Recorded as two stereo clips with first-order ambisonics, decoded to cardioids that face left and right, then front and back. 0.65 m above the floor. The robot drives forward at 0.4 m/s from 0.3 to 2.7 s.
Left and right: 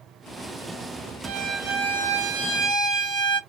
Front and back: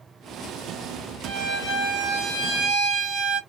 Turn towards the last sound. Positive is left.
turn(degrees=-125)